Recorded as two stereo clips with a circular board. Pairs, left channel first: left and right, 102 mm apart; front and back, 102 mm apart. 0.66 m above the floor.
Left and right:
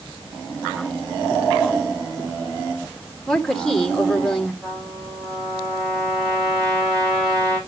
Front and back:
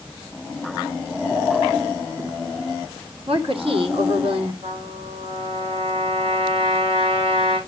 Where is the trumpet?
175° left, 9 m.